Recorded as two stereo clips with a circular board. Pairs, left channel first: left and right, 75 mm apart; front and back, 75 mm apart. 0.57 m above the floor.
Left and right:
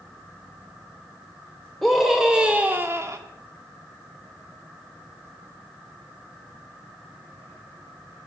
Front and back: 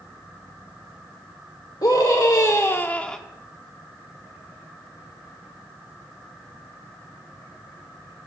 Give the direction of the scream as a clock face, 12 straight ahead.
12 o'clock.